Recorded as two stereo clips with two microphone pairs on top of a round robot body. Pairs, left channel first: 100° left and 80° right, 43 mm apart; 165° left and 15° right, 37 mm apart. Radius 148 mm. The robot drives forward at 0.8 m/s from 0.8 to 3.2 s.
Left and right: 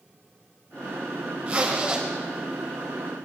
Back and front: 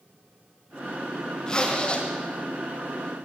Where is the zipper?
130° right, 1.8 m; by 2.0 s 140° right, 2 m.